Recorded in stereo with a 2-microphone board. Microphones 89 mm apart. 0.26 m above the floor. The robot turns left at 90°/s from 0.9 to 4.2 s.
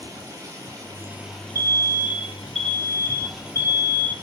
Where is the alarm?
95° right, 0.7 m; by 4.1 s 30° left, 0.7 m.